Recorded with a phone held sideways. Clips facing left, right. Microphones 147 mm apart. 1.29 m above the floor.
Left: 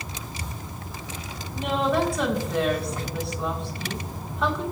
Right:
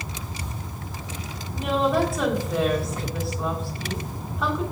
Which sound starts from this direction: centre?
A woman speaking, at 1.5 s.